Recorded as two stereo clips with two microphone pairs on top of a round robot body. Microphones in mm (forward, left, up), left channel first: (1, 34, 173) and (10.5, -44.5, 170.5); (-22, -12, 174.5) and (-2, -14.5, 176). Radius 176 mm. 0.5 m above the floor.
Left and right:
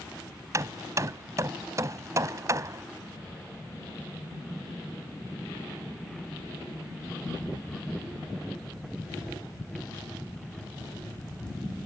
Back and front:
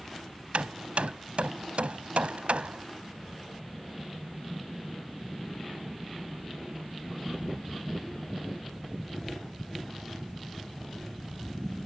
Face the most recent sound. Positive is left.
turn(degrees=-30)